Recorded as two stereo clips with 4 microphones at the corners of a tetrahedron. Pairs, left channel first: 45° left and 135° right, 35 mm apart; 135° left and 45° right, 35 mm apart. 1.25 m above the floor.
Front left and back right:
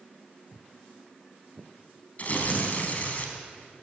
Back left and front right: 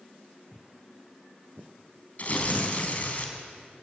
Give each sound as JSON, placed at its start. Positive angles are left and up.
{"t": 0.5, "sound": "footsteps", "azimuth_deg": -50, "distance_m": 1.6}
{"t": 2.2, "sound": "tearing paper", "azimuth_deg": 90, "distance_m": 3.5}